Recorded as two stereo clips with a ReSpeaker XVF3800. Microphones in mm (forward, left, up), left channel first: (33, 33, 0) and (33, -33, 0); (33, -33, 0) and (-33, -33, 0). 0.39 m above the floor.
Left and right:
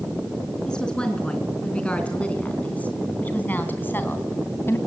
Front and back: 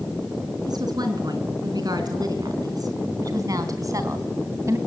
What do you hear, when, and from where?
0.7 s a woman speaking: 170° left, 4.5 m; by 4.8 s 140° left, 2.5 m